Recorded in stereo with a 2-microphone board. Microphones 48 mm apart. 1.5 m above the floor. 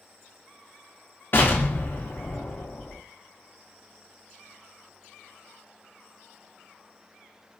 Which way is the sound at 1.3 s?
45° left (ahead or behind).